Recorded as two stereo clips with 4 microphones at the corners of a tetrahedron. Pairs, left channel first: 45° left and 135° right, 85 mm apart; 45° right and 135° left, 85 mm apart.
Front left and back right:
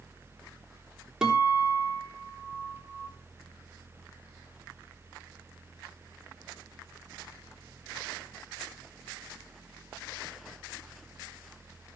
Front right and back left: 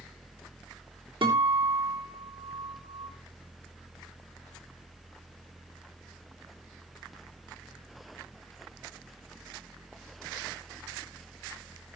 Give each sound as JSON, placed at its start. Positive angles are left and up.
{"t": 1.2, "sound": "a guitar", "azimuth_deg": 140, "distance_m": 3.5}